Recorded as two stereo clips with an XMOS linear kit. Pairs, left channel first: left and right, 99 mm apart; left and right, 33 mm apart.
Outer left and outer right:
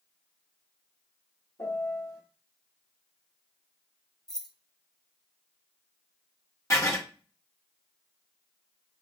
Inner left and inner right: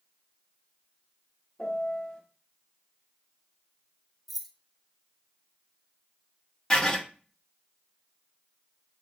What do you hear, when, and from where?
1.6 s a piano: 35° left (ahead or behind), 1.3 m
4.3 s keys jangling: 5° left (ahead or behind), 0.6 m
6.7 s writing: 30° left (ahead or behind), 1.2 m